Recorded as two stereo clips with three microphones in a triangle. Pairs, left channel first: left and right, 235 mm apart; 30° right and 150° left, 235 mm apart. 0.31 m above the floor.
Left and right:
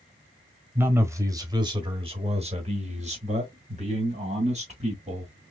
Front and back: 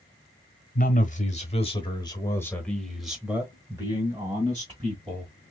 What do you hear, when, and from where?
0.8 s a man speaking: 15° right, 1.3 m; by 5.3 s 145° right, 2 m